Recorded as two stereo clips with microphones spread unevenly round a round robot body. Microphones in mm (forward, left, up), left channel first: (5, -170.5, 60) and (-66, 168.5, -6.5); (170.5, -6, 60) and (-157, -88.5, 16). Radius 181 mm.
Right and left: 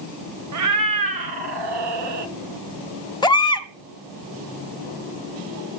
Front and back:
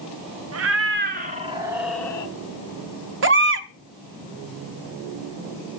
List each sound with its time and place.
0.5 s a cat meowing: 145° left, 1.2 m; by 2.3 s 90° left, 1.1 m
3.2 s a baby crying: 165° right, 1.3 m